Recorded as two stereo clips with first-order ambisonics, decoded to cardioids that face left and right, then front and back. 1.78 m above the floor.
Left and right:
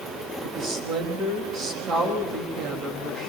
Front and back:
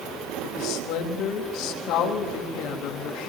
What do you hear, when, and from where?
0.4 s a woman speaking: 30° right, 3.5 m